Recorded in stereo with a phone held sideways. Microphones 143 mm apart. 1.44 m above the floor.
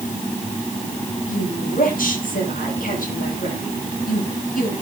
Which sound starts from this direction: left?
A woman speaking, at 1.3 s.